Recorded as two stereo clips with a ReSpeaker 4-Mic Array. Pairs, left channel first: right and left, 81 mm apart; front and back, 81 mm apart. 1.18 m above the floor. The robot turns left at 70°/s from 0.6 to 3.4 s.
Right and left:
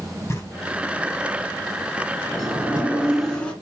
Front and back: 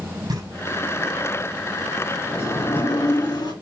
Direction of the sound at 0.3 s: 145° right.